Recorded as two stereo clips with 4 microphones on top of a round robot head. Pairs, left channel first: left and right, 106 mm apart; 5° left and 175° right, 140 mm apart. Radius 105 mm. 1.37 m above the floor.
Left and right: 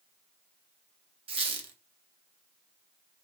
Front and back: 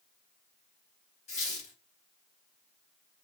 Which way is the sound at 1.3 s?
55° right.